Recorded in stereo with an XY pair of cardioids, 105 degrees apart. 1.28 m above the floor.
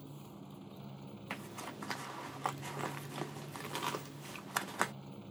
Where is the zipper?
5° right.